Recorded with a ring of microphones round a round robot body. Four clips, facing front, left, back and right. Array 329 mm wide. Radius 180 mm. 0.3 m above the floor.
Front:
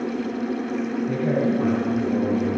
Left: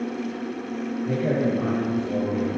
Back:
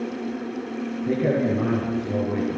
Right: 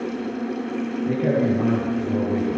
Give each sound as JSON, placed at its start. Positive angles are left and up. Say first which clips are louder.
{"t": 1.0, "sound": "a man speaking", "louder": "right 3 dB, back 2 dB", "azimuth_deg": -160, "distance_m": 8.5}